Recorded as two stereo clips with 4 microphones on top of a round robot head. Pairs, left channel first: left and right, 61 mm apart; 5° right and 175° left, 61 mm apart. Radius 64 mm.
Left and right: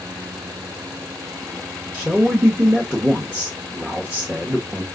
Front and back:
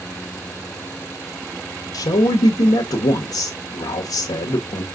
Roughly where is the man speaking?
Ahead.